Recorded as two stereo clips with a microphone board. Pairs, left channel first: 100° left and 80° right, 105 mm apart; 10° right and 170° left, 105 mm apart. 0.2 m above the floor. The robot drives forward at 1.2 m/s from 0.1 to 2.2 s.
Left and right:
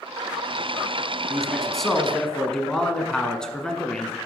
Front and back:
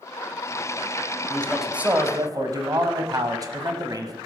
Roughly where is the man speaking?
Ahead.